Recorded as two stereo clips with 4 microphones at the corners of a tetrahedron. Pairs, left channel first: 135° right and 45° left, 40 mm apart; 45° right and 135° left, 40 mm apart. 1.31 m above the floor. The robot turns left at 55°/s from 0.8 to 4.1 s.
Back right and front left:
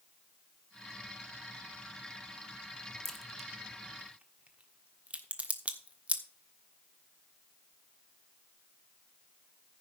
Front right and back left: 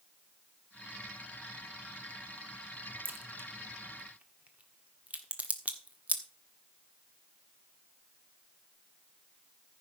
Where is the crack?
150° left, 1.4 m; by 6.2 s 90° left, 1.4 m.